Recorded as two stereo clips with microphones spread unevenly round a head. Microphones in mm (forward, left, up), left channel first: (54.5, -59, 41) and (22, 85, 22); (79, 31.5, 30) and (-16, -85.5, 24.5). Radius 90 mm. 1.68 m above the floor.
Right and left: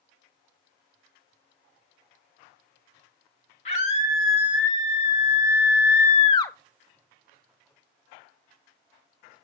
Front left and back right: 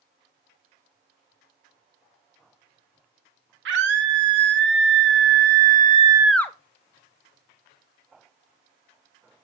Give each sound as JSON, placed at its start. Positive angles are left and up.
{"t": 3.6, "sound": "a scream", "azimuth_deg": -135, "distance_m": 3.0}